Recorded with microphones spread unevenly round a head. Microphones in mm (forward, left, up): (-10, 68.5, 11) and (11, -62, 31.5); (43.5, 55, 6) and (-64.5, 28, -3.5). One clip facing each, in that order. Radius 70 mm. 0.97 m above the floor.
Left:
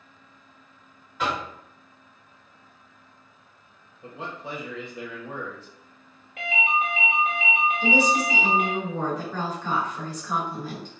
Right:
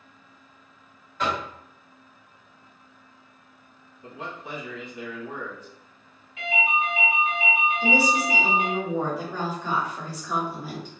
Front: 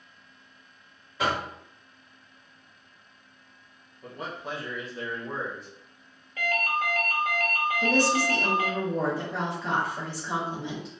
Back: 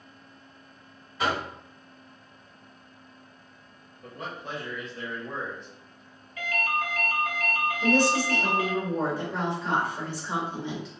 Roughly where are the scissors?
I don't hear scissors.